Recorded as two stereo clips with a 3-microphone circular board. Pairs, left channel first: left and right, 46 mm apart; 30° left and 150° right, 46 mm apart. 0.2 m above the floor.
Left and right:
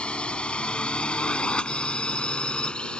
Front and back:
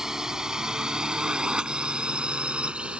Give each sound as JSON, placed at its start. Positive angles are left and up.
{"t": 0.0, "sound": "a drone", "azimuth_deg": 140}